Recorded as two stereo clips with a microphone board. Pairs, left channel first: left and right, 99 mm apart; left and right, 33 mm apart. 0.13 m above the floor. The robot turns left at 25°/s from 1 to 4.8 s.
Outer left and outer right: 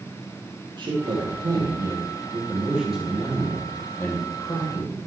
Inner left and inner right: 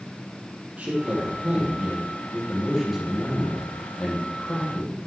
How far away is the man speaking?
About 4 m.